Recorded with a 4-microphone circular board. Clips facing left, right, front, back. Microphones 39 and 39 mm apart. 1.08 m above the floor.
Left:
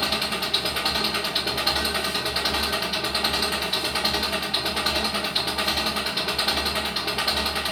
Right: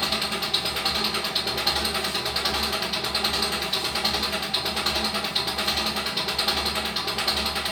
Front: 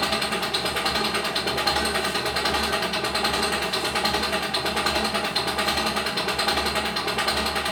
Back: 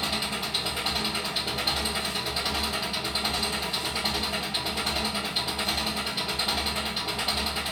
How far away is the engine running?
About 0.7 m.